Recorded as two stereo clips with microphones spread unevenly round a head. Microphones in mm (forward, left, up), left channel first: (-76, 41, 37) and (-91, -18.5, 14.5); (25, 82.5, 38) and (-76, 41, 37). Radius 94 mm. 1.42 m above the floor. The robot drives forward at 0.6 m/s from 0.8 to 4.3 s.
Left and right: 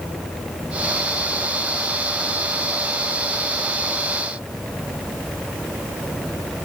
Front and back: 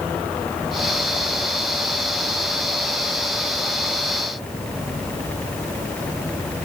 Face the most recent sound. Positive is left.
No sound to turn to.